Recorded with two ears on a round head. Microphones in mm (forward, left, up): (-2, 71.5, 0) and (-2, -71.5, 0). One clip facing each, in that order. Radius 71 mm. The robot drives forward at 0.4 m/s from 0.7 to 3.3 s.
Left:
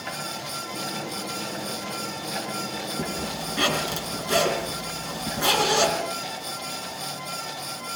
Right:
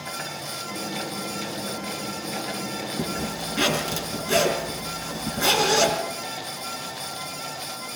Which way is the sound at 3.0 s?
Centre (ahead or behind).